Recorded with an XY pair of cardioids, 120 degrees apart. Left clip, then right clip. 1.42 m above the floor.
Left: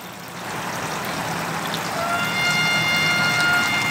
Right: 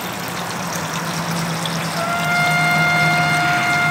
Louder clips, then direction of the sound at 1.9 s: Right 4 dB; 20° left.